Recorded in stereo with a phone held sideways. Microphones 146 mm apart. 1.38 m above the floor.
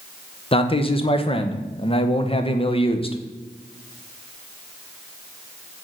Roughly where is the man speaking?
Left.